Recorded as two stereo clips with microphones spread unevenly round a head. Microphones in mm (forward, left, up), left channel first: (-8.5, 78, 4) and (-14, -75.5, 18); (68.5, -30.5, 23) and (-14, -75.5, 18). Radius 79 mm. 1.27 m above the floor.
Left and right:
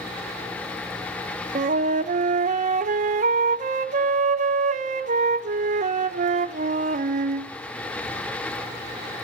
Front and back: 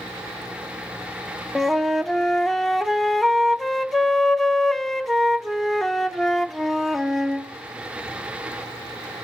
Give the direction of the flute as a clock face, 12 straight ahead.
2 o'clock.